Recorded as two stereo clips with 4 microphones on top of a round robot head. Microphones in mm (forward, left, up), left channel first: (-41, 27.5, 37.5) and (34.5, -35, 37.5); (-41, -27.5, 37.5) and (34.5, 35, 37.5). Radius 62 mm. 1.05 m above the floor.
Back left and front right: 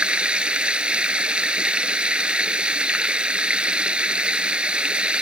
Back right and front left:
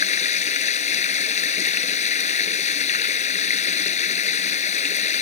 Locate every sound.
0.0 s running water: 120° right